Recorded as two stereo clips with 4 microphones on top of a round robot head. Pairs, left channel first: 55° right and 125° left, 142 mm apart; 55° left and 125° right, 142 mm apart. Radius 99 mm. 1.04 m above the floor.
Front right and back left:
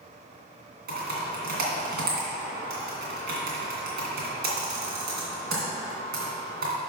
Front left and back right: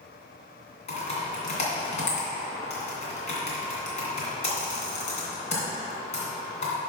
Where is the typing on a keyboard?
105° left, 2.5 m.